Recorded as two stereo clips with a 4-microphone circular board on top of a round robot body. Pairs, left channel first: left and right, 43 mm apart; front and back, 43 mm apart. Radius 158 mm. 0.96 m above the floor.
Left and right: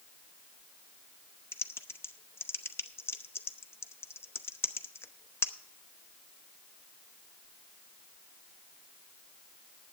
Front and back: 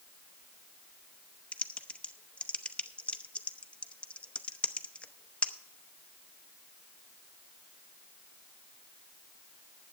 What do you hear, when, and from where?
1.5 s typing on a keyboard: 65° left, 0.8 m